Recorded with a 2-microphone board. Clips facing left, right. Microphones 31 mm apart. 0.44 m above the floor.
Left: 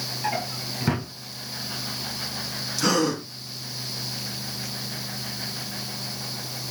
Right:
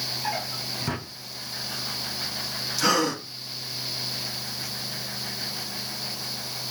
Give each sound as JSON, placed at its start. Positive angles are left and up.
{"t": 0.2, "sound": "a drawer", "side_deg": 20, "distance_m": 2.5}
{"t": 2.8, "sound": "a gasp", "side_deg": -5, "distance_m": 2.5}